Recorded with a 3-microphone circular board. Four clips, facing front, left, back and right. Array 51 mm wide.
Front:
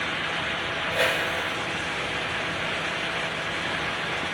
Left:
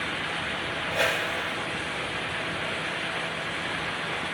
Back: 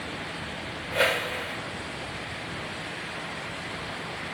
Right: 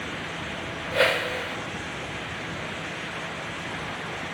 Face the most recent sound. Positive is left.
turn(degrees=-90)